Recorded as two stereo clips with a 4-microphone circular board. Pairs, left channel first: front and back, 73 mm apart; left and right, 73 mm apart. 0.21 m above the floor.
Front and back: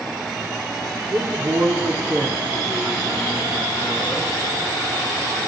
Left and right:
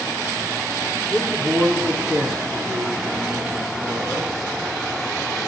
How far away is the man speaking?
About 4.5 m.